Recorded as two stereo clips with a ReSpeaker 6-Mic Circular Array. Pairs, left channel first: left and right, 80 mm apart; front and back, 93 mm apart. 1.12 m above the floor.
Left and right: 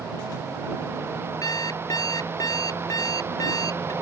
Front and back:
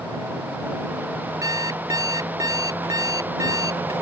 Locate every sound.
1.4 s an alarm clock: 130° left